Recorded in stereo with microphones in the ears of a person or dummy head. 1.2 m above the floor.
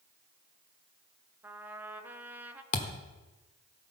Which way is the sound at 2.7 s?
45° left (ahead or behind).